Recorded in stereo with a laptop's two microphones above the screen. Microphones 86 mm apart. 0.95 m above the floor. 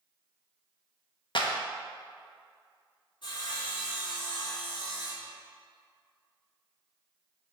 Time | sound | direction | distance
1.4 | a clap | 65° left (ahead or behind) | 0.8 m
3.2 | sawing | 60° left (ahead or behind) | 2 m